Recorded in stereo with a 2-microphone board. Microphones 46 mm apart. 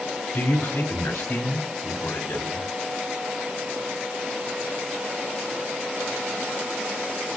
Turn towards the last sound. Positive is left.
turn(degrees=70)  # may be behind; listen again after turning